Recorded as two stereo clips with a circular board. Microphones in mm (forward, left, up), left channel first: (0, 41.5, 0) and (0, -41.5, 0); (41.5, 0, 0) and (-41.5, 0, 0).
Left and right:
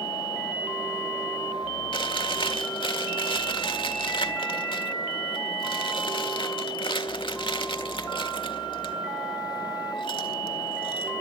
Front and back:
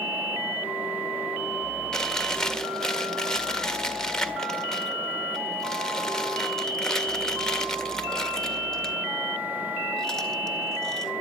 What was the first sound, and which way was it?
Chewing, 80° left.